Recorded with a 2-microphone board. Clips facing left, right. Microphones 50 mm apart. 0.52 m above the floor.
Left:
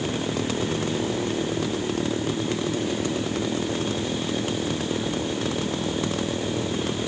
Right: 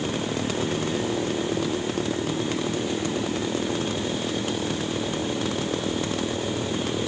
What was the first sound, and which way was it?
Only background noise.